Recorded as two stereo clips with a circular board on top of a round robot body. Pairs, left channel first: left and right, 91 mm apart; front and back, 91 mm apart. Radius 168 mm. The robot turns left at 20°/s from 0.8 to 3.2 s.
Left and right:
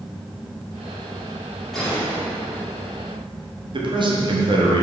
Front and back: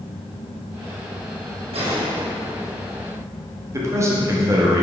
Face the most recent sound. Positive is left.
turn(degrees=-120)